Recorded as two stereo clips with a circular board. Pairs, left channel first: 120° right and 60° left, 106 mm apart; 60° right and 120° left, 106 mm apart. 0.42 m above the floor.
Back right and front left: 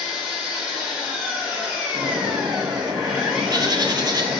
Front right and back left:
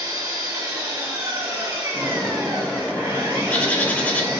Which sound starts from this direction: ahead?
A bird, at 1.9 s.